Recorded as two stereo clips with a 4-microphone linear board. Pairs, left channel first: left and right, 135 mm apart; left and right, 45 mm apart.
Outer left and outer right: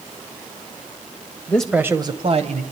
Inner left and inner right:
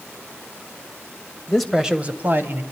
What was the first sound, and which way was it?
A man speaking, 15° left (ahead or behind).